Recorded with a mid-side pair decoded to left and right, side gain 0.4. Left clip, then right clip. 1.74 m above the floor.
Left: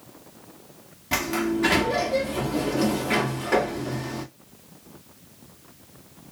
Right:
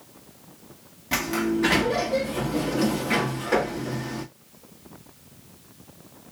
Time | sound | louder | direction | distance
1.1 | a sliding door | even | 5° left | 1.2 m